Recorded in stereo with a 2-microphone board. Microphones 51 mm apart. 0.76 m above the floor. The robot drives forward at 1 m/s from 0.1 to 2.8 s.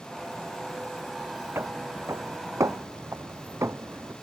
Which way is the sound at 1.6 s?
50° right (ahead or behind).